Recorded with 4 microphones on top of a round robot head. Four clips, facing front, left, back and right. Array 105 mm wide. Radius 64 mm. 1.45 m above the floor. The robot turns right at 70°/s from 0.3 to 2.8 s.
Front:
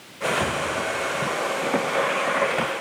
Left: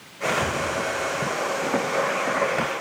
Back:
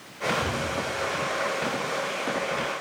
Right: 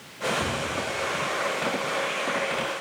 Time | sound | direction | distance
0.4 | a cupboard door | 10° right | 1.9 m